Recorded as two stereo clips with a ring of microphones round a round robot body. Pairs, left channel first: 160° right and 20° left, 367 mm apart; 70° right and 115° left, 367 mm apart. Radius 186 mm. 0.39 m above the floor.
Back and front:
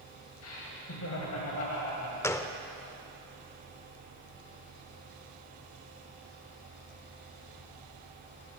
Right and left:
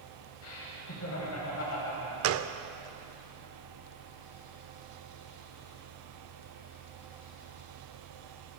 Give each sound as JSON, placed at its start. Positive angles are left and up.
{"t": 0.4, "sound": "laughter", "azimuth_deg": -110, "distance_m": 3.0}
{"t": 2.2, "sound": "a gunshot", "azimuth_deg": 125, "distance_m": 0.5}